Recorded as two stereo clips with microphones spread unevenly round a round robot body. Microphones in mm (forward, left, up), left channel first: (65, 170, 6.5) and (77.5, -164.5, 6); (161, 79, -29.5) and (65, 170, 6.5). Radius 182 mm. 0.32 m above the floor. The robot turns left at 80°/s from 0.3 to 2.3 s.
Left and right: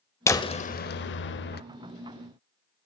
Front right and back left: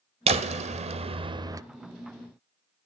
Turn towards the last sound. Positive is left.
turn(degrees=5)